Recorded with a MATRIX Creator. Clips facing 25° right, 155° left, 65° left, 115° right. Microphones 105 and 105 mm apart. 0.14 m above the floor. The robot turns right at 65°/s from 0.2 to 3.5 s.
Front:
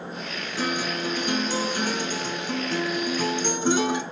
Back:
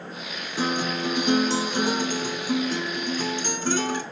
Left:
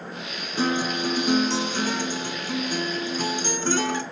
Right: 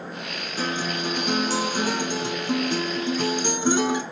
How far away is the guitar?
About 0.7 m.